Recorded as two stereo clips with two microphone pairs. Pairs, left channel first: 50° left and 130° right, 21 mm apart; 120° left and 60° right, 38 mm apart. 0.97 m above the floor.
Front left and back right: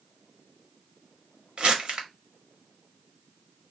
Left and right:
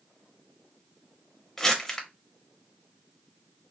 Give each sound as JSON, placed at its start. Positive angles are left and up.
{"t": 1.6, "sound": "crumpling", "azimuth_deg": -165, "distance_m": 1.2}